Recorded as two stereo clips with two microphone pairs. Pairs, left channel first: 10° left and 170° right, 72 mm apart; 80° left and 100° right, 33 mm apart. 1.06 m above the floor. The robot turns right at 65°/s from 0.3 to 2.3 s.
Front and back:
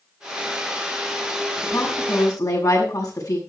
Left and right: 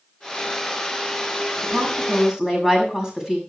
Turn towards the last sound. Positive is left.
turn(degrees=-25)